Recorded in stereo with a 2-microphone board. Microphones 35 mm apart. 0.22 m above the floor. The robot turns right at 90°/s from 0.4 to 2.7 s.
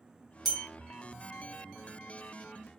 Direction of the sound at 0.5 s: 5° left (ahead or behind).